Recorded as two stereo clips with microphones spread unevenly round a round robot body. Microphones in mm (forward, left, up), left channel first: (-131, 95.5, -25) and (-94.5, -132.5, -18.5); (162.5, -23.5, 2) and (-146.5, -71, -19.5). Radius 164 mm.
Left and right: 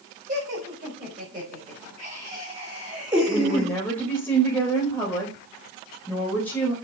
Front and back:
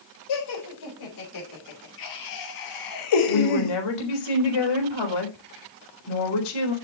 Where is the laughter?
10° right, 5.5 m; by 3.8 s 20° left, 0.9 m.